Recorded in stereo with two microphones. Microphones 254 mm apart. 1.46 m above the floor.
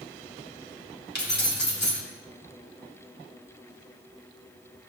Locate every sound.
1.1 s keys jangling: 45° left (ahead or behind), 2.5 m